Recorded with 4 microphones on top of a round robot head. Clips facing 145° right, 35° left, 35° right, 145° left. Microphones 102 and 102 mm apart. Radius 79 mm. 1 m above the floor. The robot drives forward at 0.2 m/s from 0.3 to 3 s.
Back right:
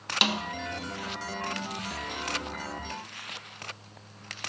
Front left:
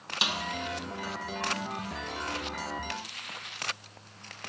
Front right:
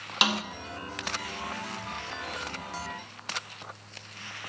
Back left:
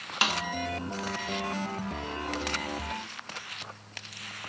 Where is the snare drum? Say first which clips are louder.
Back right 4 dB, front right 2 dB; 110° right, 0.6 m.